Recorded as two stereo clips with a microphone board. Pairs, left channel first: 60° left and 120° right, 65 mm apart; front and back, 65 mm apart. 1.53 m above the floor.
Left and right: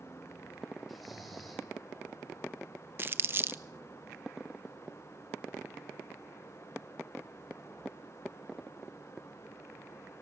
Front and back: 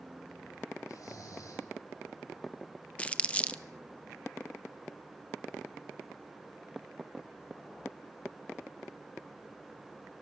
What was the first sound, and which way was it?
Snoring, 30° right.